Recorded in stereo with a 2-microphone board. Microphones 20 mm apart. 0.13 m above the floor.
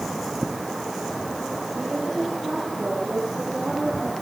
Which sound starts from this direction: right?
A woman speaking, at 1.8 s.